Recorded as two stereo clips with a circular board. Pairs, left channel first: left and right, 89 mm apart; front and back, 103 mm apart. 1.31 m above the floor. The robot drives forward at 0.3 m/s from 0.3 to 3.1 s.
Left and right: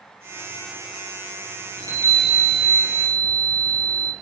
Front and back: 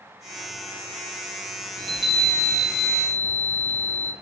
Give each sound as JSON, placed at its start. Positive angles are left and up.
{"t": 1.8, "sound": "a chime", "azimuth_deg": -135, "distance_m": 0.6}